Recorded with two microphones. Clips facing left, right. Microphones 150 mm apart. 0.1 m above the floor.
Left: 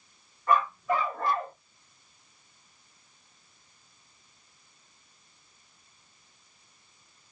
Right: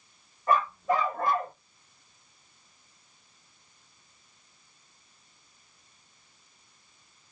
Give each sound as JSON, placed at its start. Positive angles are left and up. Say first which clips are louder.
{"t": 0.5, "sound": "a dog barking", "louder": "even", "side_deg": -30, "distance_m": 2.0}